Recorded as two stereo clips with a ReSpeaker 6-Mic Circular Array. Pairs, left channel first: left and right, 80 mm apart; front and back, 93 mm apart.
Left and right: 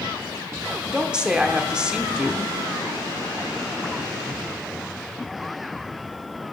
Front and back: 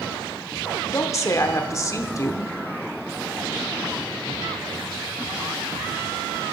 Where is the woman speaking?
20° right, 1.1 m.